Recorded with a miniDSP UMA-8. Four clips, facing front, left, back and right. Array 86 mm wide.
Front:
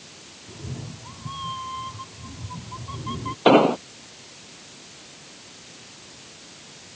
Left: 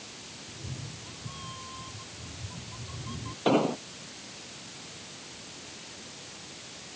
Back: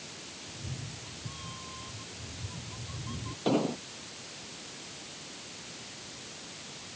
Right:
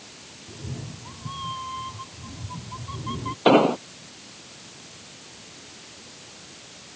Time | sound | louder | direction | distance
0.5 | a cat meowing | right 7 dB, front 8 dB | 35° right | ?
3.5 | an explosion | right 8 dB, front 13 dB | 30° right | ?